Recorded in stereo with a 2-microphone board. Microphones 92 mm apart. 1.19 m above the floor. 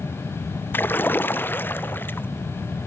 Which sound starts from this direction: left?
A splash, at 0.7 s.